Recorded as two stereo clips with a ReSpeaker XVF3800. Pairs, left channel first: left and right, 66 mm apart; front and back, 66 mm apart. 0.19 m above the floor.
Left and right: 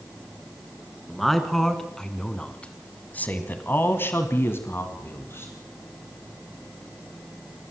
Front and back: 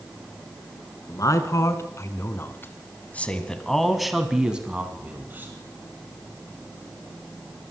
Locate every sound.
1.1 s a man speaking: straight ahead, 3 m; by 5.5 s 130° left, 2.5 m